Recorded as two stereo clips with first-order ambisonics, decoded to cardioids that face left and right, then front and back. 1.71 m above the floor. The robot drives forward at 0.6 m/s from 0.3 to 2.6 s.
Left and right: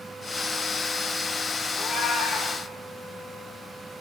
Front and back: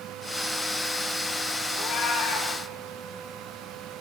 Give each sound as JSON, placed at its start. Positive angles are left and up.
{"t": 1.7, "sound": "a cat meowing", "azimuth_deg": 40, "distance_m": 3.5}